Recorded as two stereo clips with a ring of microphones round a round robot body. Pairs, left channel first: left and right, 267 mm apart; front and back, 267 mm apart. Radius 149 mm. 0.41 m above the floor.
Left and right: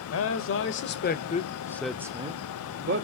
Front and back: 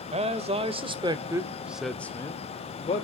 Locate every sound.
0.1 s a man speaking: 115° left, 1.6 m; by 3.0 s 60° right, 1.2 m